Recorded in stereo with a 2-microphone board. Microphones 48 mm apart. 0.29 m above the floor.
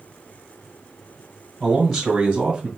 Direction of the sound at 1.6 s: 10° left (ahead or behind).